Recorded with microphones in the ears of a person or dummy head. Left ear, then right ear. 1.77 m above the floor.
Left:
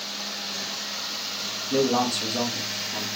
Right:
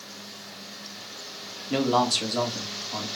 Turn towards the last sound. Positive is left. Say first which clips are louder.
# right 1 dB
turn(degrees=-70)  # may be behind; listen again after turning